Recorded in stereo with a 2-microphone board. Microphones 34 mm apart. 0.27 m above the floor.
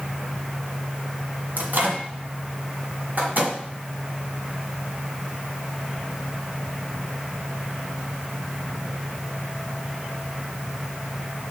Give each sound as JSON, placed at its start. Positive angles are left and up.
{"t": 1.6, "sound": "a microwave", "side_deg": -55, "distance_m": 1.5}